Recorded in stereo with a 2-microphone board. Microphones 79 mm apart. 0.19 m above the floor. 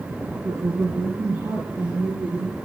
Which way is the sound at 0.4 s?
15° right (ahead or behind).